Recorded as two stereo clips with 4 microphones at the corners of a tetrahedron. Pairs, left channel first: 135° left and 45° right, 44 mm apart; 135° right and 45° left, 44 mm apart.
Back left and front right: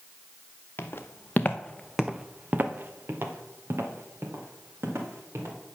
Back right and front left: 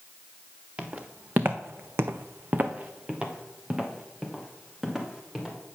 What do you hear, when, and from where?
0.8 s footsteps: 100° left, 1.3 m; by 5.6 s 35° right, 3.5 m